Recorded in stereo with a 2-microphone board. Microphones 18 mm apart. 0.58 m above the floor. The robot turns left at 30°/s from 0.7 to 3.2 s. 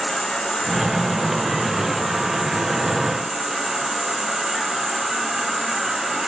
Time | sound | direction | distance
0.0 | an insect | 55° left | 2 m